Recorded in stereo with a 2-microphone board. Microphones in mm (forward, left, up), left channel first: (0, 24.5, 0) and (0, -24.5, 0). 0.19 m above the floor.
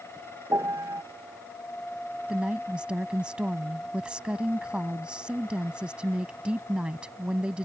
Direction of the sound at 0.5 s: 75° right (ahead or behind).